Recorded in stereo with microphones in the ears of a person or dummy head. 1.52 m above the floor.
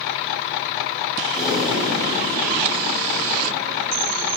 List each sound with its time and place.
1.3 s breathing: centre (ahead or behind), 4.5 m